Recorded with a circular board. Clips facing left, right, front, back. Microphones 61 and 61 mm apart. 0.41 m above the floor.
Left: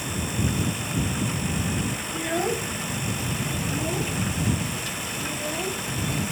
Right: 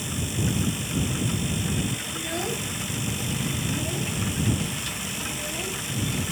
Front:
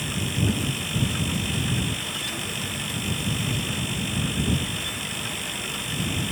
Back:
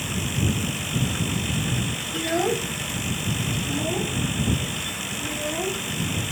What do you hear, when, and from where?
2.1 s a child speaking: 155° left; by 6.3 s 160° left